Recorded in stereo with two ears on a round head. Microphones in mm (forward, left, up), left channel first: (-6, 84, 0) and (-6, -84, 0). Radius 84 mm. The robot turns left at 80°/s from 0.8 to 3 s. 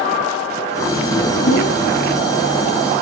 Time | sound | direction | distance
1.4 | a whoosh | 65° left | 3.5 m